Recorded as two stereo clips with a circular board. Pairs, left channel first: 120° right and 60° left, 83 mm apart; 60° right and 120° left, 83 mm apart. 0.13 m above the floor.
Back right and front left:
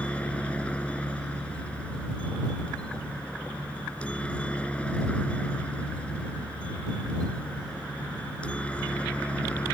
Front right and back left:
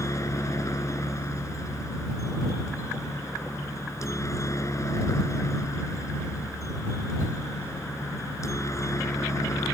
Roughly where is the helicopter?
Ahead right.